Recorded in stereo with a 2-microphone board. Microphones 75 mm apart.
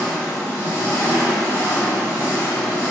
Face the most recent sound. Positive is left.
turn(degrees=35)  # may be behind; listen again after turning